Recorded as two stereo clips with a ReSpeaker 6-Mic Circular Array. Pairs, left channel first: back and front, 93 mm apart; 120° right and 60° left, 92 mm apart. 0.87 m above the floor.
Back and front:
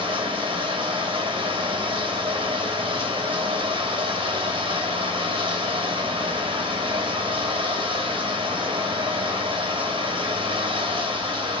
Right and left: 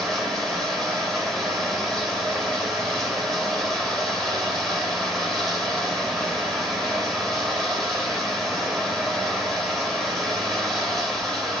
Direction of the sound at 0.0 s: 35° right.